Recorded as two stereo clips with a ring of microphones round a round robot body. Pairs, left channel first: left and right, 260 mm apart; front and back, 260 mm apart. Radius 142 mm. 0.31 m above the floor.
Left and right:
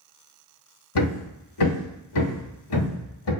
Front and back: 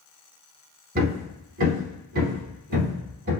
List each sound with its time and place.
0.9 s hammering: 120° left, 0.8 m